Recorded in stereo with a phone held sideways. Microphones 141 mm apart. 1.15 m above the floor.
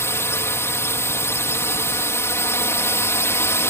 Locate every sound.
0.0 s a drone: 20° left (ahead or behind)